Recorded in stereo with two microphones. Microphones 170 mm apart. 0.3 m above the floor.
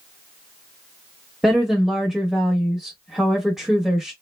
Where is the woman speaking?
5° right (ahead or behind), 0.9 m.